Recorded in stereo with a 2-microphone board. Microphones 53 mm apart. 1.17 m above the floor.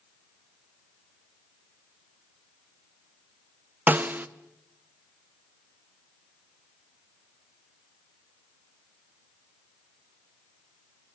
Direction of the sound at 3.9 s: 35° right (ahead or behind).